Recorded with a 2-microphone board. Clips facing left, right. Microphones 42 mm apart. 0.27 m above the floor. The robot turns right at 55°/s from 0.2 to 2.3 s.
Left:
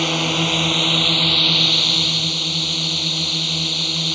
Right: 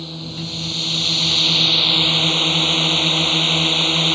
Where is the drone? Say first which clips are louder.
Left 11 dB; 105° left; by 4.2 s 140° right.